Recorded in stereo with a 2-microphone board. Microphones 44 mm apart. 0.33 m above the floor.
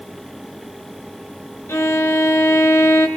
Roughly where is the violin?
Left.